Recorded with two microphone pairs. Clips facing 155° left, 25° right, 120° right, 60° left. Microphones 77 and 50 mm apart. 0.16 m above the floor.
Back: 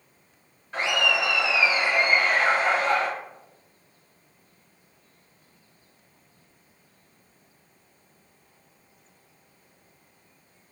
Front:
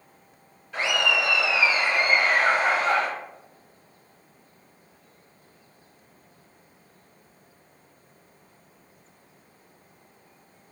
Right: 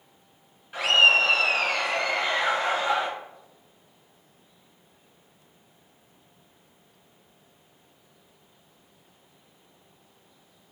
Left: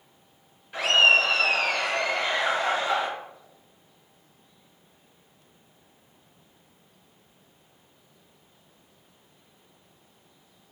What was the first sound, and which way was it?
Laughter, 170° left.